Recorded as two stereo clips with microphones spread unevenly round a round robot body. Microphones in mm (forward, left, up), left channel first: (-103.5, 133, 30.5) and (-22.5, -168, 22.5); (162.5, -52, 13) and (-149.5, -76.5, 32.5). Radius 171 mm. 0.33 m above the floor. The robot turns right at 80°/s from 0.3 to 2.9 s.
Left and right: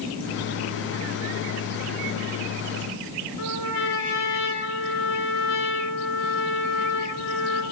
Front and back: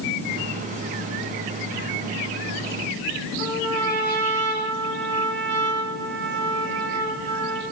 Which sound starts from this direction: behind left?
A trumpet, at 3.4 s.